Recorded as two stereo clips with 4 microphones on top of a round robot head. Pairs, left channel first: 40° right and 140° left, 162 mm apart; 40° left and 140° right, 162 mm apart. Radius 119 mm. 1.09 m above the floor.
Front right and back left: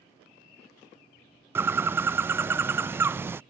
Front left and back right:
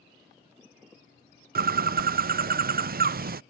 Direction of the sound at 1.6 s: 145° right.